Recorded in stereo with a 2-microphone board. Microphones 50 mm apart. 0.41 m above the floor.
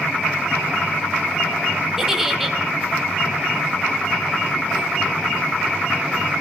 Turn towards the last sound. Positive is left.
turn(degrees=-5)  # may be behind; listen again after turning